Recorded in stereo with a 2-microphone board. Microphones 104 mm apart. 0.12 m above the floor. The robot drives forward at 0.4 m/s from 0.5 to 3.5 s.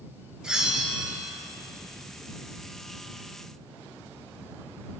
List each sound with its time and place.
0.4 s a bell: 5° right (ahead or behind), 0.9 m